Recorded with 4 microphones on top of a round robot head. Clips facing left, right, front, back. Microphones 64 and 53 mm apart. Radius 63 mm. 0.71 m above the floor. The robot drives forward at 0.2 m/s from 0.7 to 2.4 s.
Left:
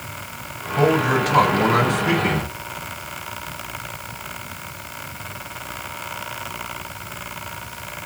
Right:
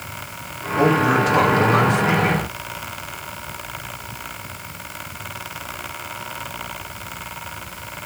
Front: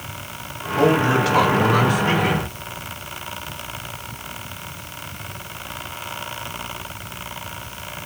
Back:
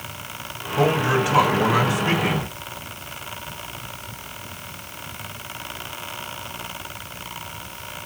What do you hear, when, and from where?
0.8 s a man speaking: 105° left, 3 m; by 2.5 s 110° left, 3 m